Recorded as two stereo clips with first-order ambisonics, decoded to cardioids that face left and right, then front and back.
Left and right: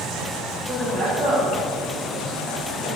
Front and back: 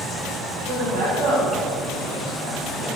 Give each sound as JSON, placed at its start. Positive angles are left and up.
{"t": 0.6, "sound": "a man speaking", "azimuth_deg": 180, "distance_m": 1.5}